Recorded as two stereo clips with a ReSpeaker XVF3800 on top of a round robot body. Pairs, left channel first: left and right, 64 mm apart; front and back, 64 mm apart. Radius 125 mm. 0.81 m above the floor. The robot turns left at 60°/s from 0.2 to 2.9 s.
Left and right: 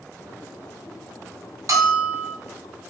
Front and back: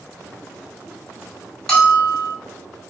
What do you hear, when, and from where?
1.7 s a bell: 80° right, 1.9 m; by 2.4 s 120° right, 1.9 m